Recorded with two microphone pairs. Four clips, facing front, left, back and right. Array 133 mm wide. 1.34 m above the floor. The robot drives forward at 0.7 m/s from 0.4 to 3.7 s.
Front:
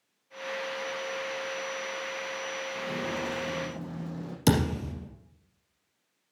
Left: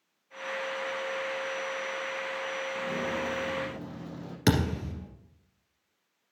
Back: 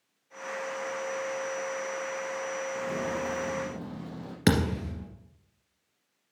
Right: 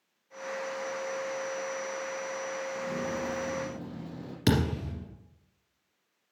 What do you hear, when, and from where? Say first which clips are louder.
2.8 s footsteps: left 2 dB, even; 130° left, 1.9 m; by 4.4 s 155° left, 3 m
4.5 s a thud: even, even; 150° left, 2.5 m